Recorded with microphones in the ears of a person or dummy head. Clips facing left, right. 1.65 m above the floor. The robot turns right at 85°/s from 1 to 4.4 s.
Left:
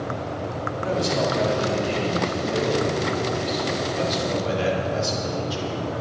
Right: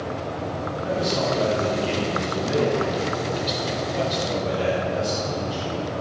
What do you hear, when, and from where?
0.8 s a man speaking: 135° left, 4 m; by 5.8 s 65° left, 4 m